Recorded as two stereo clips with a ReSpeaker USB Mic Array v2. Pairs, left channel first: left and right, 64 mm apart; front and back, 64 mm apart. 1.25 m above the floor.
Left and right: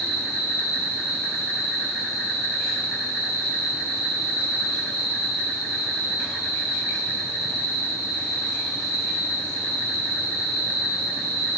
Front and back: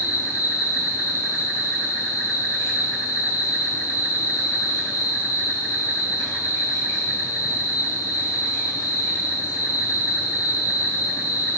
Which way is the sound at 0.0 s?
15° left.